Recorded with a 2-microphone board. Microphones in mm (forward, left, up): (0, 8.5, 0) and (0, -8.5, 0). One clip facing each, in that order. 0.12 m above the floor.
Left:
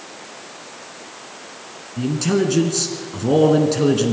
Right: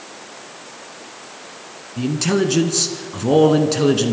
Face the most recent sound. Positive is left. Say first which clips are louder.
# right 1 dB
turn(degrees=-15)  # may be behind; listen again after turning